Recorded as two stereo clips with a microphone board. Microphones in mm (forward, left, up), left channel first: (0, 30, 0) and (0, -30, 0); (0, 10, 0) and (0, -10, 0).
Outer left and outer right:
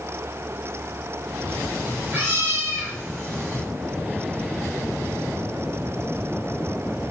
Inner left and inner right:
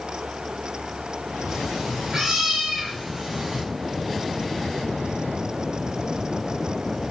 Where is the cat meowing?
30° right (ahead or behind), 4 m; by 3.6 s 60° right (ahead or behind), 3 m.